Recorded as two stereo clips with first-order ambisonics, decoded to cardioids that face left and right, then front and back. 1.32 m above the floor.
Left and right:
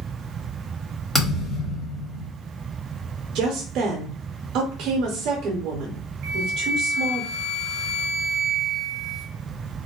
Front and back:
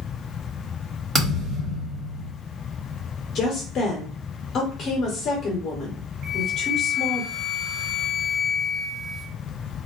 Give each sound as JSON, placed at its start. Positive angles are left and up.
{"t": 1.1, "sound": "a thud", "azimuth_deg": 155, "distance_m": 1.1}
{"t": 3.4, "sound": "a woman speaking", "azimuth_deg": -50, "distance_m": 0.6}
{"t": 6.2, "sound": "a flute", "azimuth_deg": -135, "distance_m": 0.9}